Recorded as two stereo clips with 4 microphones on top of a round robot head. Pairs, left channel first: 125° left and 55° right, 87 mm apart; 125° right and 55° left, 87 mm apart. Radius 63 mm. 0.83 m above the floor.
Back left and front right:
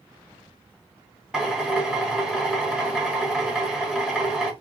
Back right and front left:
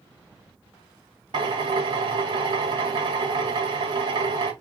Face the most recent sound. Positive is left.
turn(degrees=25)